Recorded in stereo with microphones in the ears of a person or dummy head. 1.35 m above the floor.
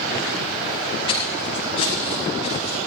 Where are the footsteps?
25° left (ahead or behind), 9.5 m; by 2.8 s 30° left (ahead or behind), 9 m.